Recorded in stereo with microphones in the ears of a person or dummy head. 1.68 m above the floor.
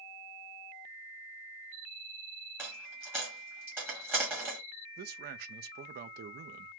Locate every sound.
2.6 s a dropped coin: 10° right (ahead or behind), 1.2 m
5.0 s a man speaking: 45° right (ahead or behind), 0.5 m